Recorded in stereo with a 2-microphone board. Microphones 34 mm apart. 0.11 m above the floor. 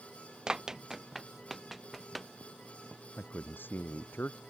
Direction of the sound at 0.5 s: 25° right (ahead or behind).